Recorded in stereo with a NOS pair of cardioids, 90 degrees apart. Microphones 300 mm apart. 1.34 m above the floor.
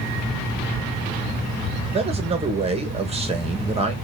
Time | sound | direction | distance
1.9 | a man speaking | 20° right | 1.3 m